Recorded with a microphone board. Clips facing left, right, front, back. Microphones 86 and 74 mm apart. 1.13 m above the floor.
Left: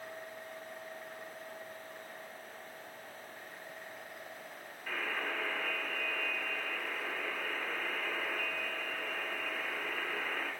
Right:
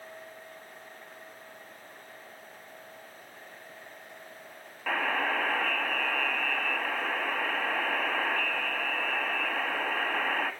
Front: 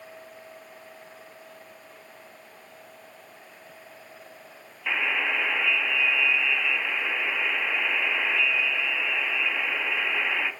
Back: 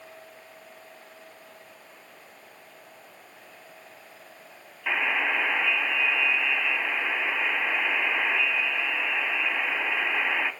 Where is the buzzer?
95° right, 1.8 m.